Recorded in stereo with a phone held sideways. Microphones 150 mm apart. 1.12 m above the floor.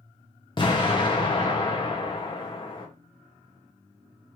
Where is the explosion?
35° left (ahead or behind), 0.8 m.